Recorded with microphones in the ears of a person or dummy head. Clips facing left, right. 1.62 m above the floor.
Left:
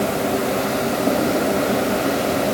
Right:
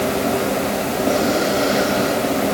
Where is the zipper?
No zipper in this recording.